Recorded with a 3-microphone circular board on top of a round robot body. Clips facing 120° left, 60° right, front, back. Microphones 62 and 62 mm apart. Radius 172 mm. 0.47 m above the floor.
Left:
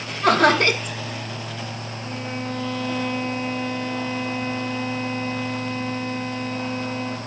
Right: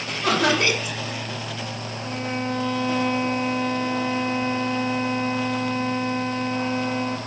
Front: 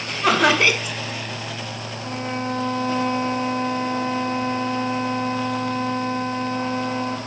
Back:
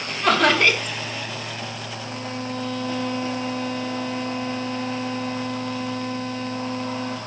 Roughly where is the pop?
No pop in this recording.